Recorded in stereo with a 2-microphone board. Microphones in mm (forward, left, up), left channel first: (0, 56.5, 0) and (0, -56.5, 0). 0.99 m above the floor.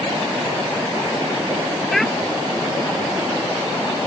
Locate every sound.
1.9 s a child speaking: 5° left (ahead or behind)